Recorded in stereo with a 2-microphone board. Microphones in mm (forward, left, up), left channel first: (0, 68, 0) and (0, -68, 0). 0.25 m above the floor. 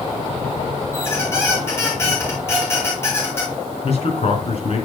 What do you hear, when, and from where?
0.9 s a squeak: 20° left (ahead or behind), 3.5 m
3.8 s a man speaking: 55° left (ahead or behind), 3 m